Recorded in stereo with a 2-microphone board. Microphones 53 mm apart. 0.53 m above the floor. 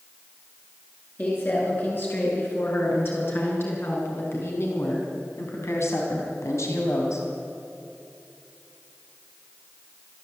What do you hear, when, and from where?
1.2 s a woman speaking: 40° left (ahead or behind), 7.5 m; by 7.3 s 75° left (ahead or behind), 3.5 m